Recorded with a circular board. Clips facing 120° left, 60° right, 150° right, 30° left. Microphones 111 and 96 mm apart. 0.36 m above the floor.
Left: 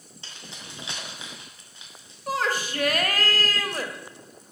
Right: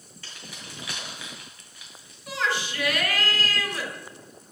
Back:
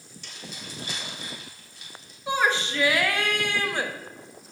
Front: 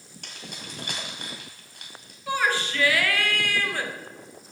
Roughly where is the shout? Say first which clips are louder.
Left 2 dB, back 1 dB; behind left.